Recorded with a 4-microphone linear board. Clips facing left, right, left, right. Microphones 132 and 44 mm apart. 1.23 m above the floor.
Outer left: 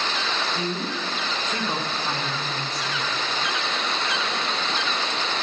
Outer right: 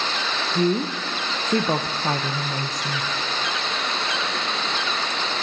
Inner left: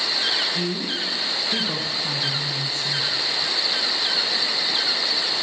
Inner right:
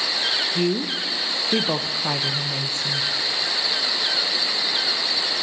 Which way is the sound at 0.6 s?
45° right (ahead or behind).